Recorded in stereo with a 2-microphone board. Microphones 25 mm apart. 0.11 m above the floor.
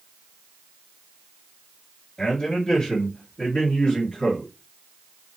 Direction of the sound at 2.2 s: 25° left (ahead or behind).